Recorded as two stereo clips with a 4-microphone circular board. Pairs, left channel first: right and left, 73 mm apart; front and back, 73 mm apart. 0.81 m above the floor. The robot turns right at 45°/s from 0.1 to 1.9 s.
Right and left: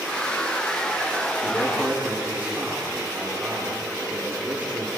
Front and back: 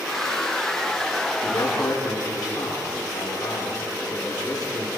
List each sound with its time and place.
1.4 s a man speaking: straight ahead, 9.5 m; by 4.9 s 25° left, 9.5 m